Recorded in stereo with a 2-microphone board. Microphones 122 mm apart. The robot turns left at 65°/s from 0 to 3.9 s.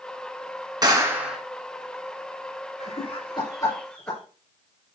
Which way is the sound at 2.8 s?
70° left (ahead or behind).